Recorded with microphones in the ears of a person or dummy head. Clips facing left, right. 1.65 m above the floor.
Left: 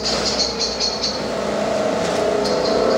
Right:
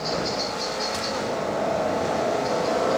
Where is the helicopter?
45° left (ahead or behind); by 3.0 s 50° left (ahead or behind).